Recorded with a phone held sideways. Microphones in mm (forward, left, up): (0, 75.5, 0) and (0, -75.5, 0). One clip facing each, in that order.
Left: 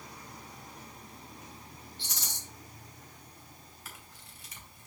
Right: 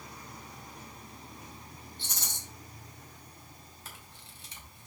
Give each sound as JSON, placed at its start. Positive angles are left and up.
{"t": 2.0, "sound": "a rattle", "side_deg": -50, "distance_m": 3.0}
{"t": 3.9, "sound": "a camera shutter", "side_deg": -25, "distance_m": 2.5}